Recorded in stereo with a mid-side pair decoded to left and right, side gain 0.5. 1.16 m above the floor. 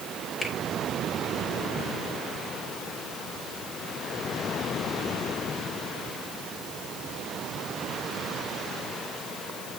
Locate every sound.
0.4 s a finger snap: 30° left, 5 m